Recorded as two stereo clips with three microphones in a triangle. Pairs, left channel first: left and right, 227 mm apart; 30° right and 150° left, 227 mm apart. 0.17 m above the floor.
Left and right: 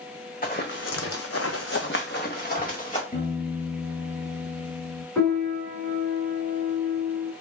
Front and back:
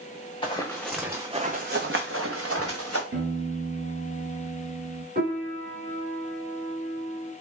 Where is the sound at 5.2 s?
160° left, 1.8 m.